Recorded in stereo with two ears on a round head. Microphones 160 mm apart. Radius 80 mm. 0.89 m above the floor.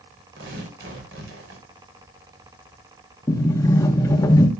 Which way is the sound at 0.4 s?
75° right (ahead or behind).